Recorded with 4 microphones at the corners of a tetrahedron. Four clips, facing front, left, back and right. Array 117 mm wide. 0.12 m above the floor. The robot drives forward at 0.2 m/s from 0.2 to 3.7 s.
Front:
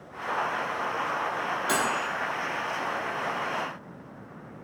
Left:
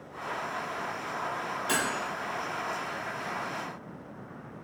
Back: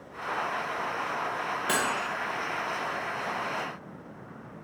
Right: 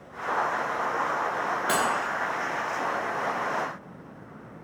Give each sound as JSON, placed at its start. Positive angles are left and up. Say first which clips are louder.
{"t": 1.7, "sound": "cutlery clinking", "louder": "right 4 dB, front 2 dB", "azimuth_deg": -125, "distance_m": 1.4}